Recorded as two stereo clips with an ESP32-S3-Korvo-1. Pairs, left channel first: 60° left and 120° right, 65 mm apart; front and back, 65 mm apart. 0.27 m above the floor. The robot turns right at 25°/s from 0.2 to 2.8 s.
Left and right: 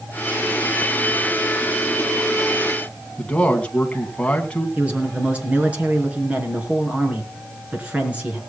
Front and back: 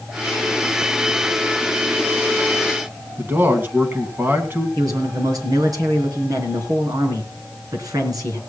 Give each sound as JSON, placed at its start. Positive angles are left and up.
{"t": 3.2, "sound": "a man speaking", "azimuth_deg": 130, "distance_m": 2.0}
{"t": 4.8, "sound": "a man speaking", "azimuth_deg": 170, "distance_m": 4.0}